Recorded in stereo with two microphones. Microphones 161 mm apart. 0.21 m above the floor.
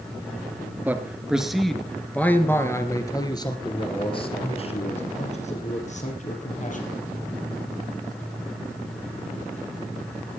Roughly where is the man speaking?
Centre.